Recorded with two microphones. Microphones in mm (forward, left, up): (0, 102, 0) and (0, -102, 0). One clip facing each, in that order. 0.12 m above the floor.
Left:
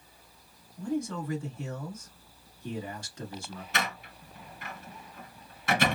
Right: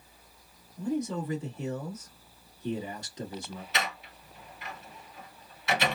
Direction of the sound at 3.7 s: 50° left (ahead or behind).